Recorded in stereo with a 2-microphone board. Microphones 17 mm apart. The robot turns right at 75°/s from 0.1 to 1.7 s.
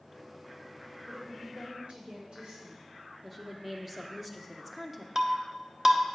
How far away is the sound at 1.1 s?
About 4 m.